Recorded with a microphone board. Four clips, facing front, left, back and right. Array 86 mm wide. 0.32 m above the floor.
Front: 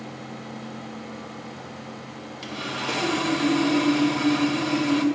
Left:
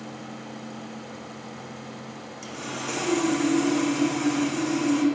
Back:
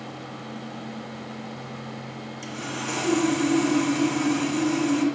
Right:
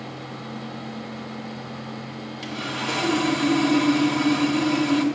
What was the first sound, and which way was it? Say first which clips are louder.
Sawing: right 4 dB, front 2 dB; 45° right.